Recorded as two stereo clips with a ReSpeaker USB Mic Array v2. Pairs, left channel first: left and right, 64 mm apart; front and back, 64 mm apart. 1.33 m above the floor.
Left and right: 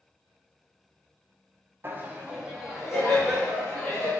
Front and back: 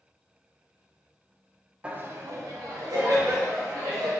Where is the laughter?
120° right, 0.6 m; by 4.1 s 170° left, 2 m.